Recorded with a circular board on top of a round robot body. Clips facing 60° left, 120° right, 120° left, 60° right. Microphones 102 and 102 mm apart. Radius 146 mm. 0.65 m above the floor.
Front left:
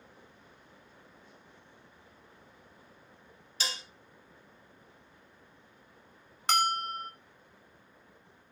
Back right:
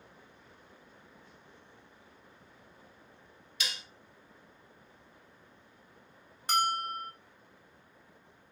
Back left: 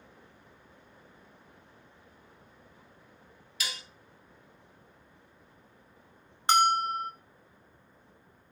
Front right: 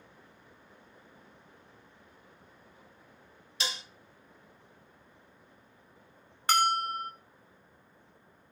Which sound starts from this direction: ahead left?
A bell, at 6.5 s.